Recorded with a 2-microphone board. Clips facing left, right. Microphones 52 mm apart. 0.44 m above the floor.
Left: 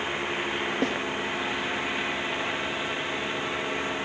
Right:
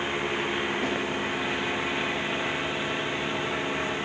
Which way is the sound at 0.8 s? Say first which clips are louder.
Left 1 dB; 80° left.